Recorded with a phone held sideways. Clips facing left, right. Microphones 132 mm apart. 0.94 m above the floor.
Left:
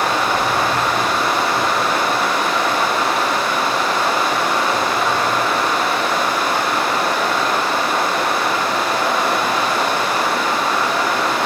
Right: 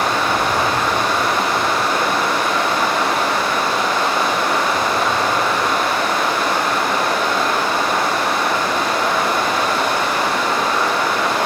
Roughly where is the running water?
Centre.